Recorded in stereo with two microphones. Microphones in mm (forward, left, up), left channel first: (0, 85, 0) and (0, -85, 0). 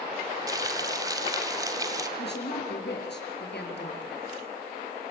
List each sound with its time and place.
0.5 s frying: 20° right (ahead or behind), 2 m
2.2 s a woman speaking: 80° left, 5.5 m